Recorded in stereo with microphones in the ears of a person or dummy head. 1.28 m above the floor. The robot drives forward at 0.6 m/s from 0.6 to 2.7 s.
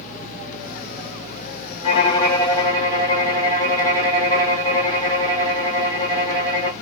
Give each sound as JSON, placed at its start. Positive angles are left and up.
{"t": 1.8, "sound": "a violin", "side_deg": 35, "distance_m": 0.9}